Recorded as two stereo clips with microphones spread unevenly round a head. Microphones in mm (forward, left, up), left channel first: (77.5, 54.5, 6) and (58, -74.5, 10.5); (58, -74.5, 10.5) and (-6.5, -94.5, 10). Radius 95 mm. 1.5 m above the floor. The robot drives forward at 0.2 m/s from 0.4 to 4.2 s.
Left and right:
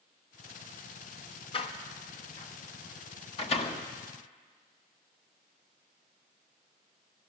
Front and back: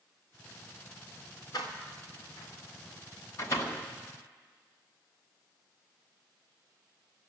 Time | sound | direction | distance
1.5 | a door slam | 45° left | 1.2 m